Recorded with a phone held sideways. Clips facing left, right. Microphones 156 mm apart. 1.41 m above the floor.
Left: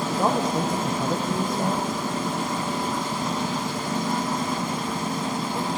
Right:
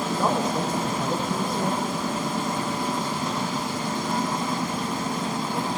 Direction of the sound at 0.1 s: 15° left (ahead or behind).